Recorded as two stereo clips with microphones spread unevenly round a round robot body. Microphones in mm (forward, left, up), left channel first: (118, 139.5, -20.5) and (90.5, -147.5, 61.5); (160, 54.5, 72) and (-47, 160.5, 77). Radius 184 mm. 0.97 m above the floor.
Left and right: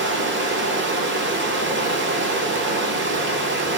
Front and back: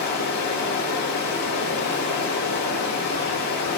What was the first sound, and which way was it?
Running water, 60° right.